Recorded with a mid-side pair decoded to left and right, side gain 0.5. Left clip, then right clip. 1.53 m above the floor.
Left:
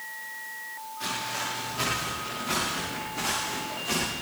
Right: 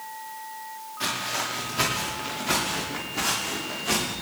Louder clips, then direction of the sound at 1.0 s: Right 3 dB; 45° right.